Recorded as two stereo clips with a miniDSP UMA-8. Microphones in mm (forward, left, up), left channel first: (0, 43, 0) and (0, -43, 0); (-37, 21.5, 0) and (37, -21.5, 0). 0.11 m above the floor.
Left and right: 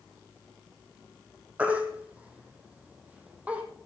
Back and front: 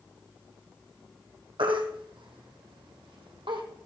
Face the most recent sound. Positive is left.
turn(degrees=-20)